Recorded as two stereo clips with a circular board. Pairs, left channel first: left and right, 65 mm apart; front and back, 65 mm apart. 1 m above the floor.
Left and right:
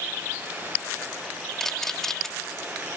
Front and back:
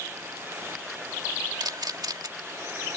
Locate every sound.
1.6 s a camera shutter: 175° left